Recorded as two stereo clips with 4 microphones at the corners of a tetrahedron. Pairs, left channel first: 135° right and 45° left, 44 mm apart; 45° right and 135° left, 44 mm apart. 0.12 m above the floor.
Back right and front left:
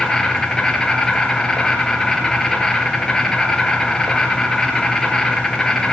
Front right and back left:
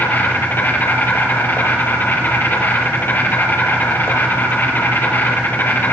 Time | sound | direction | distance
0.0 | an insect | 65° right | 4 m